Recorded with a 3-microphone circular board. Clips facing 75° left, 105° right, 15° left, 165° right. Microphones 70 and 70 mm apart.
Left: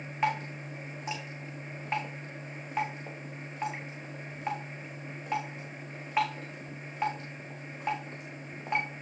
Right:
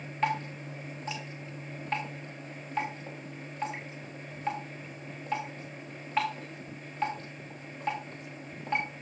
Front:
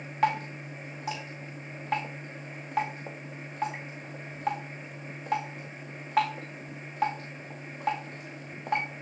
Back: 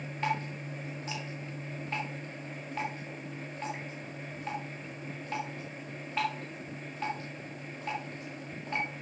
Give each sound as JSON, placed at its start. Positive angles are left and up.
{"t": 0.2, "sound": "dripping", "azimuth_deg": -5, "distance_m": 3.5}